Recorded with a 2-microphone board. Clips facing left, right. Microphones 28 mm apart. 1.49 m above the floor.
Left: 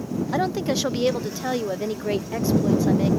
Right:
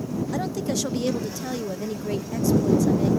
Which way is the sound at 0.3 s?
30° left (ahead or behind).